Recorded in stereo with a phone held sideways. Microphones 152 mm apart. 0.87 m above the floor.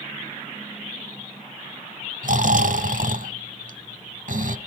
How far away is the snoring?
About 1.0 m.